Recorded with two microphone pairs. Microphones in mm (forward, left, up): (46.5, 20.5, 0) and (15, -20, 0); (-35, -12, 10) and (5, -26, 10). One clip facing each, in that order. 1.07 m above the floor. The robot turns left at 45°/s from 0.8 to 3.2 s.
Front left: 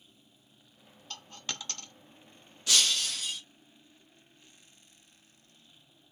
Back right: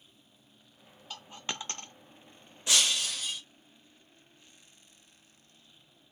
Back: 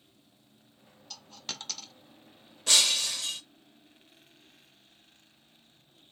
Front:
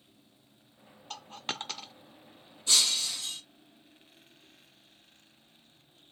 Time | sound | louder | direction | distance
1.1 | a dropped coin | back right 2 dB, front 5 dB | 45° right | 0.5 m
2.7 | breaking glass | even, back 2 dB | 165° left | 1.7 m